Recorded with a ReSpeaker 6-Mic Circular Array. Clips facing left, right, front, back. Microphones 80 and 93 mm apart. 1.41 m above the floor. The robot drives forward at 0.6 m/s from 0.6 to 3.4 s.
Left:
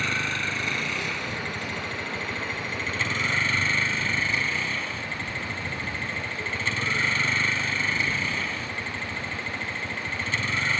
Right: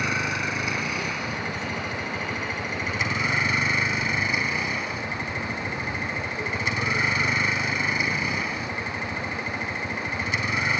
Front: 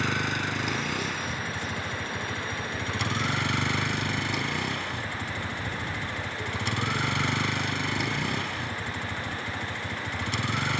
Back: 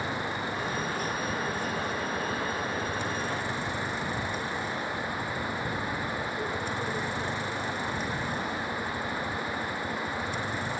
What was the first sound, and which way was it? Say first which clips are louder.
A vehicle: right 2 dB, front 3 dB; 10° right.